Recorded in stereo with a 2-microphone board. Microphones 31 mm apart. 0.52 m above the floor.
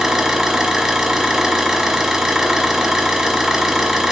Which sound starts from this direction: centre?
An engine running, at 0.0 s.